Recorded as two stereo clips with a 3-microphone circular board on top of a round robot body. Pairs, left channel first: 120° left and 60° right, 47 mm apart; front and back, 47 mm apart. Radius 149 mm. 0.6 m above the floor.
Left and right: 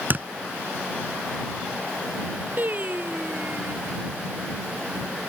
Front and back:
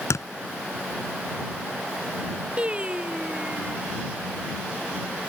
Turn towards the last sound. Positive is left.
turn(degrees=-115)